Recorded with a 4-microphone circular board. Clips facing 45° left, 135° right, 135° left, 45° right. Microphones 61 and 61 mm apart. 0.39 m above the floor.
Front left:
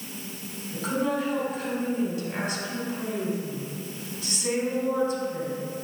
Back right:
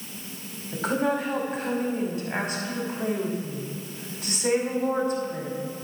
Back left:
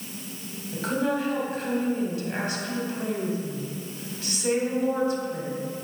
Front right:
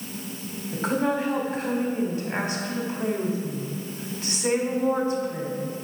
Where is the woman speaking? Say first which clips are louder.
Back right 2 dB, front right 2 dB; 105° right, 1.9 m.